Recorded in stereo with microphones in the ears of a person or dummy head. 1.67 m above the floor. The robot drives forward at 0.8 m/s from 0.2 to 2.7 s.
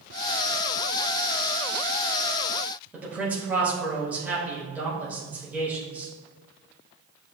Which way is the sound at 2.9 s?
10° right (ahead or behind).